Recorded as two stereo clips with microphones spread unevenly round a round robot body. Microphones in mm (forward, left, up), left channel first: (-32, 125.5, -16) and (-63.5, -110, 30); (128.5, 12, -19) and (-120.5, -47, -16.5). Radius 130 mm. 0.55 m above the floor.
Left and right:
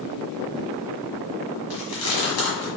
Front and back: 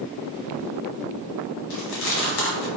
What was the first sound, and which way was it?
Chewing, 40° left.